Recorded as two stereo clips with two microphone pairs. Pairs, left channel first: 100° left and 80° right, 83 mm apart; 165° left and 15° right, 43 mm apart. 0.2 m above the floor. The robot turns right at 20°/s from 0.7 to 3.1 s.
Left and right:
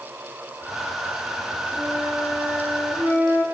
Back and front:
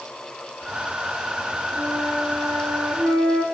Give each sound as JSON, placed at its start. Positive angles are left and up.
{"t": 1.8, "sound": "a flute", "azimuth_deg": -20, "distance_m": 4.5}